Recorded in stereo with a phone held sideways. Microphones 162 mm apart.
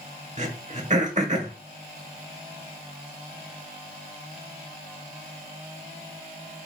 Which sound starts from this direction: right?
Throat clearing, at 0.4 s.